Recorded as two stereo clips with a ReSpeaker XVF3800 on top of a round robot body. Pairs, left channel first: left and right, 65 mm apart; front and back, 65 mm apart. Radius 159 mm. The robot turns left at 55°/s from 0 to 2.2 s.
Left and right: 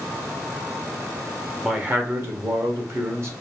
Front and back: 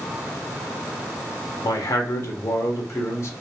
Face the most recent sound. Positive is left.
turn(degrees=-45)